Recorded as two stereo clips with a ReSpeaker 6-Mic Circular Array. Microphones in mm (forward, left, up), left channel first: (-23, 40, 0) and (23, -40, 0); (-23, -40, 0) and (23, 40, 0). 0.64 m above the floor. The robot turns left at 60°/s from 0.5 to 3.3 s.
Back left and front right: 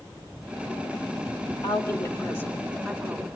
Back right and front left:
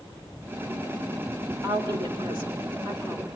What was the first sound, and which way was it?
A woman speaking, 105° left.